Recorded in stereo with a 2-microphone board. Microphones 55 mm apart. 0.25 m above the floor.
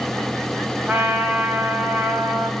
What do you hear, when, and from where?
0.9 s a trumpet: 30° right (ahead or behind), 1.6 m